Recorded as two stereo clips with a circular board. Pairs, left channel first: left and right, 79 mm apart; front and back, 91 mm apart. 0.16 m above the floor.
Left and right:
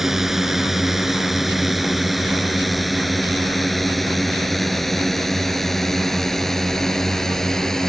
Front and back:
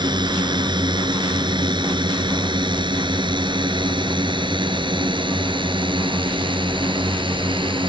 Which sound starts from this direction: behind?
A drone, at 0.0 s.